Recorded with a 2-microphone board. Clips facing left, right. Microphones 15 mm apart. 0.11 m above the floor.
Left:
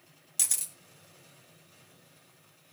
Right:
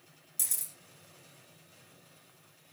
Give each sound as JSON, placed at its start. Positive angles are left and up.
{"t": 0.4, "sound": "a camera shutter", "side_deg": 45, "distance_m": 3.0}